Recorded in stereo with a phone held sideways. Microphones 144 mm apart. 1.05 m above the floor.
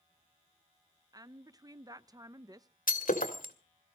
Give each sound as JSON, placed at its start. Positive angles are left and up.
{"t": 1.1, "sound": "a woman speaking", "side_deg": -25, "distance_m": 0.6}
{"t": 2.9, "sound": "breaking glass", "side_deg": 75, "distance_m": 1.7}